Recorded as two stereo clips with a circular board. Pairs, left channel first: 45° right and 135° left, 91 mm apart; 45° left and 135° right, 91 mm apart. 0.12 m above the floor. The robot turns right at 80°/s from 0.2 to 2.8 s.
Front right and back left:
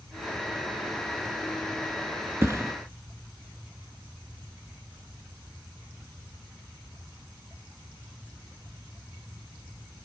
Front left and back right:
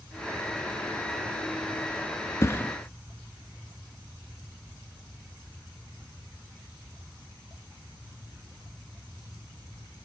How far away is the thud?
About 0.7 m.